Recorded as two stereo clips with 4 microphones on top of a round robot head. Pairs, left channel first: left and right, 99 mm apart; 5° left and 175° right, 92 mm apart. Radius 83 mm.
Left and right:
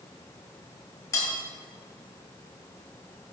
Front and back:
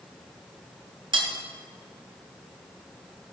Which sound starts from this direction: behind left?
Cutlery clinking, at 1.1 s.